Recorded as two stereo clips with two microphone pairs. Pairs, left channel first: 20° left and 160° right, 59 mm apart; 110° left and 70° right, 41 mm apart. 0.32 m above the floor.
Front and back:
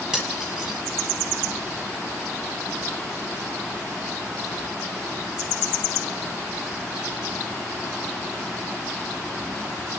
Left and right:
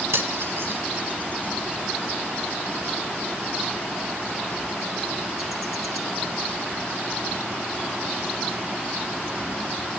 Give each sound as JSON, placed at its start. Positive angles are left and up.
{"t": 0.1, "sound": "cutlery clinking", "azimuth_deg": -90, "distance_m": 4.5}